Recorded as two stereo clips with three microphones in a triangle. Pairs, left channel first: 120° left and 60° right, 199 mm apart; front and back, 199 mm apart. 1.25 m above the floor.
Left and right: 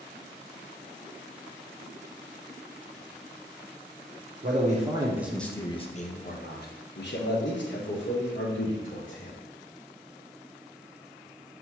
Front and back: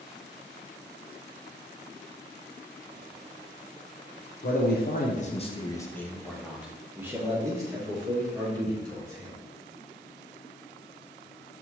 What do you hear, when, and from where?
4.4 s a man speaking: 25° right, 0.8 m; by 9.4 s 115° left, 2.5 m